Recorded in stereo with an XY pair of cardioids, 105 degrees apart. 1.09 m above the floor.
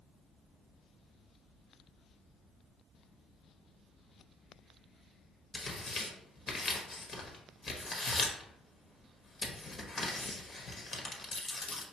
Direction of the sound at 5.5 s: 45° left.